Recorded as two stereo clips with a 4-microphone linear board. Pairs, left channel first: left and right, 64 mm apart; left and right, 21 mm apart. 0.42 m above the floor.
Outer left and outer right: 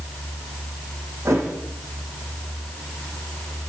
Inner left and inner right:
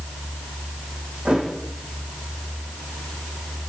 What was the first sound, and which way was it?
A thud, 50° right (ahead or behind).